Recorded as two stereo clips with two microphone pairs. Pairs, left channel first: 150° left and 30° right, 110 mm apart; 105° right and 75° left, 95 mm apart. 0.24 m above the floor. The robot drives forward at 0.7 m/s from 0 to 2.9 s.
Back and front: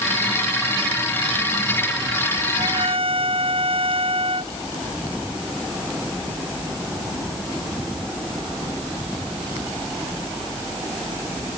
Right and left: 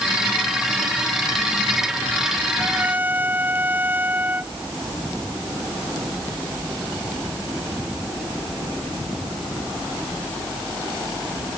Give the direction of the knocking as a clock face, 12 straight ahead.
I don't hear knocking.